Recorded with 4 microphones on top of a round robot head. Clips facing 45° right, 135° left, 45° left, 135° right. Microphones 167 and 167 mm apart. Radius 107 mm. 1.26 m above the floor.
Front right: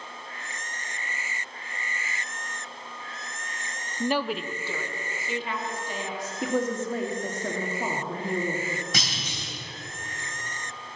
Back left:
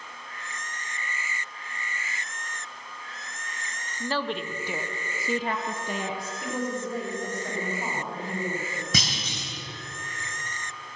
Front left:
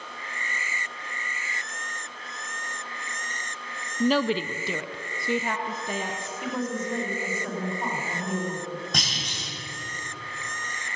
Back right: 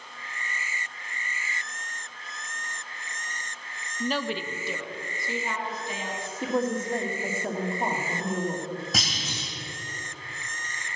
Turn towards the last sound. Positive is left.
turn(degrees=135)